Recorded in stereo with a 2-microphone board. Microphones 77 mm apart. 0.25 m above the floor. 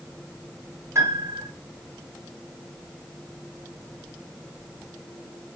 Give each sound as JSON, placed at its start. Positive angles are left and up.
{"t": 0.9, "sound": "a piano", "side_deg": -35, "distance_m": 1.3}